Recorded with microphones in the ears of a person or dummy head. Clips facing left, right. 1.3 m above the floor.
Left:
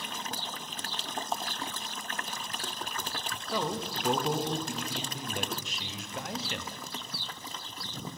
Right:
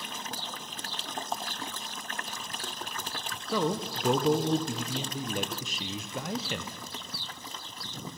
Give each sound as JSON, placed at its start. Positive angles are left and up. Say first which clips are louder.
{"t": 3.5, "sound": "a man speaking", "louder": "right 4 dB", "side_deg": -80, "distance_m": 0.5}